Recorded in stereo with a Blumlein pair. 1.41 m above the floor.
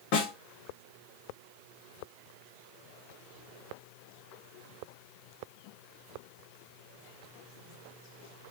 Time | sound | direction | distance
0.1 | a snare drum | 40° left | 1.0 m